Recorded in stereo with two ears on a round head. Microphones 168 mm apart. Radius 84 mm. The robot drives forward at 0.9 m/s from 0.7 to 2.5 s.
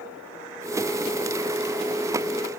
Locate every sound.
Only background noise.